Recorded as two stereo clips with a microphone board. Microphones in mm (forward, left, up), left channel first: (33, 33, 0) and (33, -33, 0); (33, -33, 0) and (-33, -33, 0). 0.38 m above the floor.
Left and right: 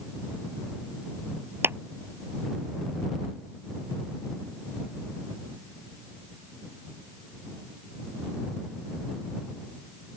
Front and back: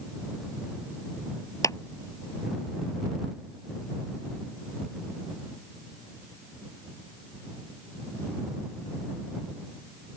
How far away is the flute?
I don't hear a flute.